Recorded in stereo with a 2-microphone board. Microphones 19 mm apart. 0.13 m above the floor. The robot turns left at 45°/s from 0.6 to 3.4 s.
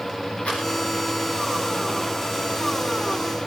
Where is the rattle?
80° left, 5.5 m; by 0.6 s 85° left, 5.5 m.